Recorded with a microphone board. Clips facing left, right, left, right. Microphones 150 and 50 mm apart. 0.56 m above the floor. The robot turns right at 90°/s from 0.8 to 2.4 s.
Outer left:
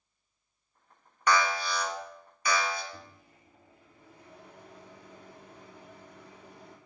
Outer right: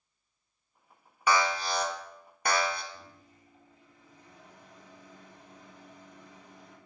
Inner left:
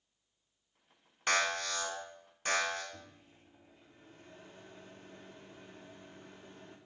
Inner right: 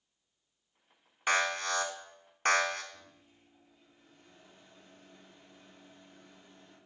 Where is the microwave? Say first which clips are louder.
Outer left 1 dB, inner left 3 dB; 70° left (ahead or behind), 1.4 m.